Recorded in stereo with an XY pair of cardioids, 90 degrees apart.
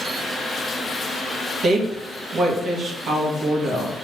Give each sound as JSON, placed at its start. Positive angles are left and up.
{"t": 1.6, "sound": "a woman speaking", "azimuth_deg": -60, "distance_m": 1.6}